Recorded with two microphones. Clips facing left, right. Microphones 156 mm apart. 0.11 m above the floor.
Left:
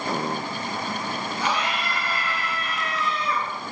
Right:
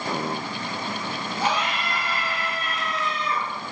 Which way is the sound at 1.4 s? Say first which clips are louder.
Right 2 dB; 35° right (ahead or behind).